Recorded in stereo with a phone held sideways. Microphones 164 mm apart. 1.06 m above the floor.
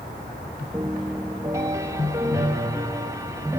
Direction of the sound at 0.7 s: 20° right (ahead or behind).